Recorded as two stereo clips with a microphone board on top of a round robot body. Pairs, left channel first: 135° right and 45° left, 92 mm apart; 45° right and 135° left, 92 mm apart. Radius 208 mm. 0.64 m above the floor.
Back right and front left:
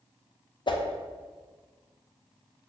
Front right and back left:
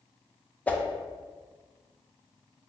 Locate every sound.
0.7 s a whoosh: 115° right, 0.6 m